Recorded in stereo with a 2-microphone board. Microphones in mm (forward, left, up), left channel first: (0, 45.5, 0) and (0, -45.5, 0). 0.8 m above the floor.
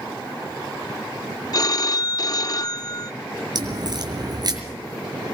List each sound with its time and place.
1.5 s a phone ringing: 45° left (ahead or behind), 0.5 m
3.5 s a crack: 50° right (ahead or behind), 5 m